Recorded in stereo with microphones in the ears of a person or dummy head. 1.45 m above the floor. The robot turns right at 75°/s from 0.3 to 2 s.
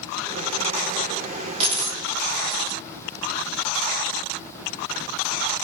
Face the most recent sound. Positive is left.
turn(degrees=-25)  # may be behind; listen again after turning